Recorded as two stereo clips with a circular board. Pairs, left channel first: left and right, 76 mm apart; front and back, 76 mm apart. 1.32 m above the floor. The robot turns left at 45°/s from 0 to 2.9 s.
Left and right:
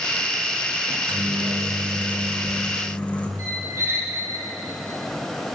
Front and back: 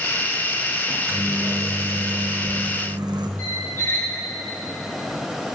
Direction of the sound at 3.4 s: 45° right.